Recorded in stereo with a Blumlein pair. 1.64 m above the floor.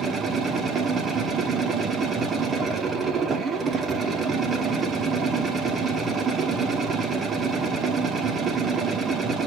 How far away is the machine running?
About 1.2 m.